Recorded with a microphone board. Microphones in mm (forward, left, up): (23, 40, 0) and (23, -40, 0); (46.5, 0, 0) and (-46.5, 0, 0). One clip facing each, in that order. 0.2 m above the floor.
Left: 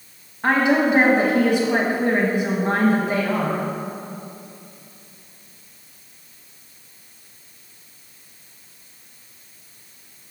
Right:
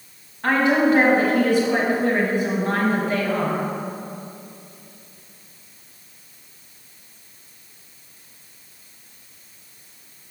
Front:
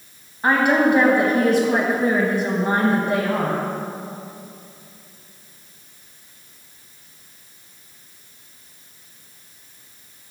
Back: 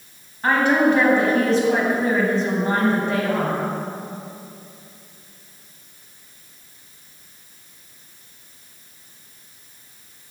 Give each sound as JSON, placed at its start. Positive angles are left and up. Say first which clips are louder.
{"t": 0.4, "sound": "a woman speaking", "louder": "even, even", "azimuth_deg": 50, "distance_m": 1.0}